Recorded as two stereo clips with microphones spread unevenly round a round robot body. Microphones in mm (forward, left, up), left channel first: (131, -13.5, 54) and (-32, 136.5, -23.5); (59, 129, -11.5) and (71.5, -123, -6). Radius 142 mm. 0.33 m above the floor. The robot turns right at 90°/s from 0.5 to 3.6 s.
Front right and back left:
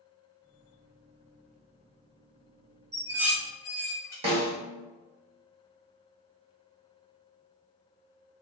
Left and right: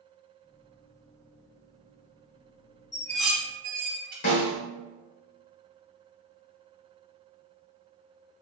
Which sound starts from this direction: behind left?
Dishes clattering, at 2.9 s.